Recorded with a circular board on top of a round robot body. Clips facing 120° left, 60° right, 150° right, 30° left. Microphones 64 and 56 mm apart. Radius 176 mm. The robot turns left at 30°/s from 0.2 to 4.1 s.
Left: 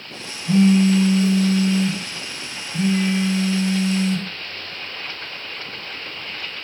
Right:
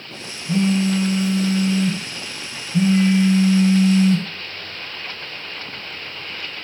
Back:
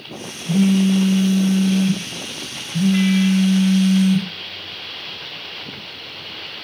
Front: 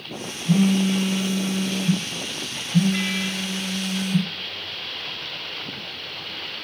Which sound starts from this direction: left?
A phone buzzing, at 0.5 s.